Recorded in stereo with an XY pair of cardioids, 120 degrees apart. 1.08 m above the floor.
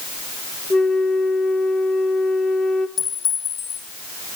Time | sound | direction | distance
0.7 | a flute | 25° left | 1.2 m
3.0 | a clink | 50° left | 9.5 m